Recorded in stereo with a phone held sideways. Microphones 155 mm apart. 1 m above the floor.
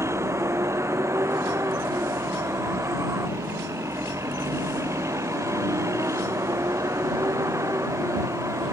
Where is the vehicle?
15° right (ahead or behind); by 8.7 s 20° right (ahead or behind).